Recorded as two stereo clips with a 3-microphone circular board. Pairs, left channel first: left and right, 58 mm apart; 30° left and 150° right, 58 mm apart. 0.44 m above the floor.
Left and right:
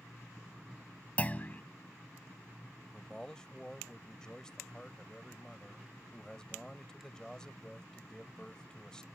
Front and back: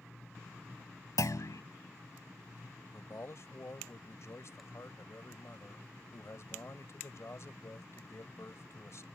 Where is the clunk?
25° left.